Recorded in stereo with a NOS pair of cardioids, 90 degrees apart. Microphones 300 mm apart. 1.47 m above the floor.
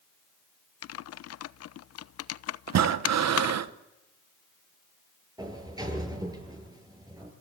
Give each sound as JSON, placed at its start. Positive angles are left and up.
{"t": 0.8, "sound": "typing on a keyboard", "azimuth_deg": 55, "distance_m": 0.7}
{"t": 2.7, "sound": "breathing", "azimuth_deg": -60, "distance_m": 1.3}
{"t": 5.4, "sound": "a sliding door", "azimuth_deg": -10, "distance_m": 8.5}